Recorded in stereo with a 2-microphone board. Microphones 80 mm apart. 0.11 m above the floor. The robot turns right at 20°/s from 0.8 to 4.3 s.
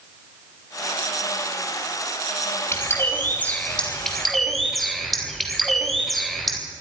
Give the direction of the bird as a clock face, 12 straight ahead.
7 o'clock.